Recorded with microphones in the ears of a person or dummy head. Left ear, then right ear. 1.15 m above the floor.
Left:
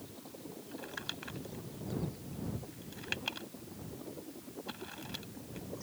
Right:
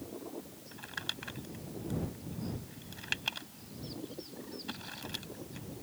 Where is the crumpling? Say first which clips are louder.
Right 3 dB; 5° right (ahead or behind).